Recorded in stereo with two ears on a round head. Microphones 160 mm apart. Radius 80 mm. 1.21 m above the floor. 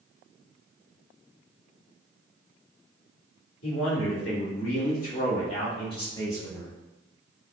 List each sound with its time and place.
3.6 s a man speaking: 80° left, 1.9 m; by 6.7 s 10° left (ahead or behind), 1.8 m